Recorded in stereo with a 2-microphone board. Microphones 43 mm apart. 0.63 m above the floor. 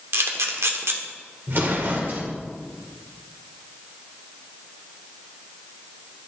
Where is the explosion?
50° right (ahead or behind), 1.3 m.